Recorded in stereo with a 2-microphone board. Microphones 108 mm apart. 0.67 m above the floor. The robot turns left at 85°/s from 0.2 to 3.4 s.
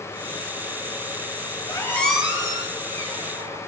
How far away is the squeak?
About 1.4 m.